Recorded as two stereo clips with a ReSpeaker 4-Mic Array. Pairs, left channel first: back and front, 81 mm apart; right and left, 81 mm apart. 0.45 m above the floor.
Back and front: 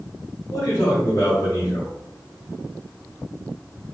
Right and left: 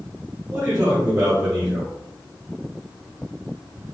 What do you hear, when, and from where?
0.5 s a man speaking: 135° left, 1.2 m